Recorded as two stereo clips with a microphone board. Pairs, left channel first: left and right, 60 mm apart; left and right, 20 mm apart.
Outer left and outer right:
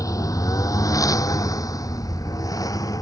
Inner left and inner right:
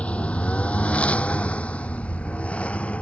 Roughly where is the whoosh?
No whoosh in this recording.